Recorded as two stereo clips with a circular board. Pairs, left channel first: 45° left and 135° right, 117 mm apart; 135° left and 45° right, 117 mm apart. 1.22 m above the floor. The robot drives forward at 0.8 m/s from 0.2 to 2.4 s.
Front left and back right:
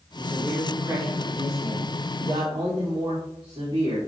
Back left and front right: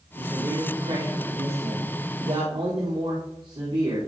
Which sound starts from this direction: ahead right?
A man speaking, at 0.2 s.